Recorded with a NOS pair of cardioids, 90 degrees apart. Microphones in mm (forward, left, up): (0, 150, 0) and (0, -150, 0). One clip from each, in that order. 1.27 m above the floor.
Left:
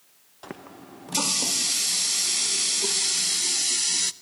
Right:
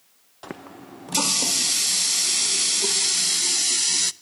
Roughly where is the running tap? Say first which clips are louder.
Right 3 dB; ahead.